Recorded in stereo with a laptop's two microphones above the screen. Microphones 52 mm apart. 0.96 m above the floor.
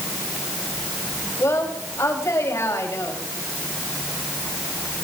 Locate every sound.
1.4 s a woman speaking: 65° left (ahead or behind), 6 m